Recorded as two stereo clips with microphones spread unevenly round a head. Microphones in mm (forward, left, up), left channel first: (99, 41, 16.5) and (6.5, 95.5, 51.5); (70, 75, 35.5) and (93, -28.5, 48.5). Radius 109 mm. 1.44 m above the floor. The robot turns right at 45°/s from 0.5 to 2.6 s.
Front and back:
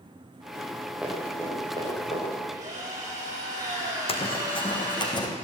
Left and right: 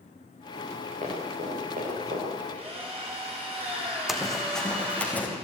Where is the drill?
140° right, 4.5 m; by 5.1 s 135° right, 4.5 m.